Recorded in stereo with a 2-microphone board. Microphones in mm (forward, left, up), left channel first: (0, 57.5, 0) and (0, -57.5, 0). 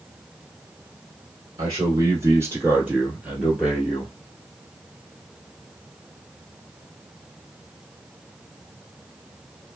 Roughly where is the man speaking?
Right.